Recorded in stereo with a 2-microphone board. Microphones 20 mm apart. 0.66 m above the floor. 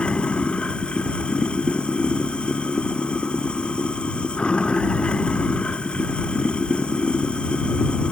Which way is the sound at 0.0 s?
55° left (ahead or behind).